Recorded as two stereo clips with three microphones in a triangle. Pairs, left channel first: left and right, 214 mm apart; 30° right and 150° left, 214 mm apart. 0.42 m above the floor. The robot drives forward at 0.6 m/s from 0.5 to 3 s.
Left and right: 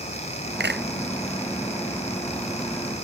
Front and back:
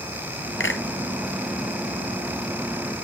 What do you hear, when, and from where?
0.6 s a clap: 55° right